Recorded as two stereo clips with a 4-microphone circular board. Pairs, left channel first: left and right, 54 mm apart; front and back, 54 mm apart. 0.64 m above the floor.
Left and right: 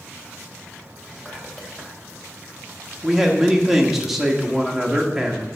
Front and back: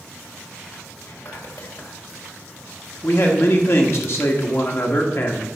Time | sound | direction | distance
1.0 | whispering | 5° left | 2.5 m
3.0 | a man speaking | 10° right | 1.3 m